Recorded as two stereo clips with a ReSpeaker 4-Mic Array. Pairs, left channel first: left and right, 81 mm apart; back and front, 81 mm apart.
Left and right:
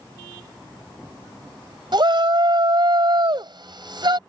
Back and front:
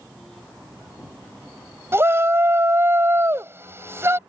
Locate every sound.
1.9 s a shout: 60° right